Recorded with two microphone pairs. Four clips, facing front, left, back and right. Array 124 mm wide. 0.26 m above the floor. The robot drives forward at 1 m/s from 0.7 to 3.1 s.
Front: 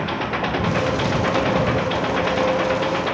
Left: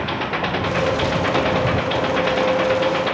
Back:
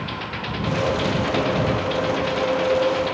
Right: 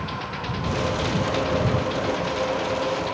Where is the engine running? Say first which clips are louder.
Left 8 dB, front 7 dB; 60° left; by 3.1 s 65° left.